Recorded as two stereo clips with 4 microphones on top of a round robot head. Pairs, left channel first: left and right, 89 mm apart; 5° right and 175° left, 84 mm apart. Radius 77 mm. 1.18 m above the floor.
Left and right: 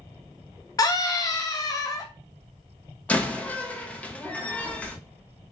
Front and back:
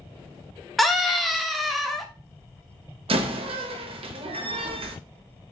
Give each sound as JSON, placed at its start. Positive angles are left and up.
{"t": 0.8, "sound": "a scream", "azimuth_deg": 85, "distance_m": 0.7}
{"t": 3.1, "sound": "a door slam", "azimuth_deg": 165, "distance_m": 0.8}